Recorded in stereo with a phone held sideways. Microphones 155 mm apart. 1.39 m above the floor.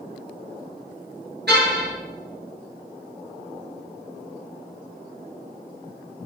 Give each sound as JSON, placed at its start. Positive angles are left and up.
{"t": 1.5, "sound": "a car horn", "side_deg": -85, "distance_m": 10.0}